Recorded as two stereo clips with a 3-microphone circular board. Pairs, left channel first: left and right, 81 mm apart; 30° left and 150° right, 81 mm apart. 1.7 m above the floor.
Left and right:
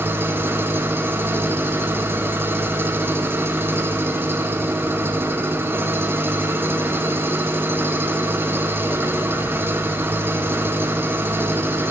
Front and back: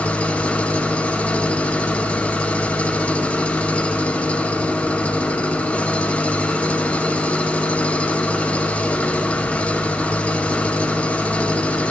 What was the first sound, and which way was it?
An engine running, 40° right.